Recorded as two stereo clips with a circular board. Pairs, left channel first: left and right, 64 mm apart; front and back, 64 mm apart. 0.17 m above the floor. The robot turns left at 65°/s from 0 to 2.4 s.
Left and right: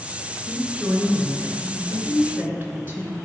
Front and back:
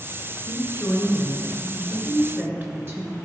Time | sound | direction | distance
0.5 | a woman speaking | 15° right | 2.5 m